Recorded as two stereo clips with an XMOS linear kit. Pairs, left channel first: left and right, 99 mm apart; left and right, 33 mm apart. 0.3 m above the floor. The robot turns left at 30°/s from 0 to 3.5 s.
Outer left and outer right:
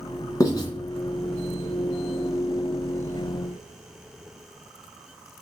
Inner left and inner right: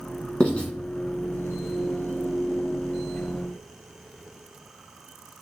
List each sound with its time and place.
0.4 s writing: 35° left (ahead or behind), 1.7 m; by 0.7 s 45° left (ahead or behind), 1.7 m